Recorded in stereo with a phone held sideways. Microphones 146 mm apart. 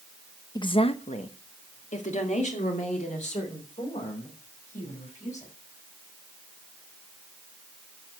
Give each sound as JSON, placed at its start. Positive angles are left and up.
{"t": 0.6, "sound": "a woman speaking", "side_deg": 30, "distance_m": 0.7}